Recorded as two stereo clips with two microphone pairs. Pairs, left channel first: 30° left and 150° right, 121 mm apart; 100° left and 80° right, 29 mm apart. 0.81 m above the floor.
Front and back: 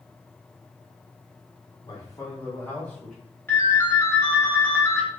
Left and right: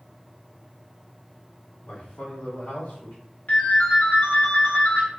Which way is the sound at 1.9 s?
85° left.